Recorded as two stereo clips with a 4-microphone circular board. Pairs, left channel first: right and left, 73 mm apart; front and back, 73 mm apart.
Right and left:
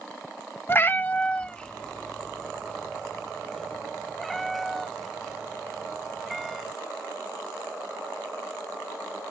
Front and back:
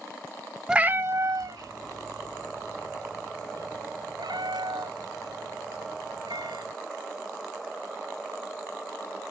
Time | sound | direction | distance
0.7 | a cat meowing | 110° right | ?